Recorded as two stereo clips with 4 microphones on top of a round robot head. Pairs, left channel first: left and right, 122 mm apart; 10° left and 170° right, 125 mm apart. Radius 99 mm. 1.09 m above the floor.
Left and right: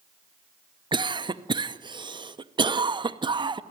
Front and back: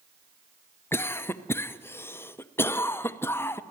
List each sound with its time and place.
0.9 s a cough: 55° right, 0.8 m